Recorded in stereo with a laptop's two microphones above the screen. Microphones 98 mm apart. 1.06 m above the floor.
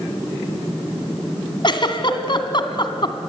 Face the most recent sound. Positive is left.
turn(degrees=50)  # may be behind; listen again after turning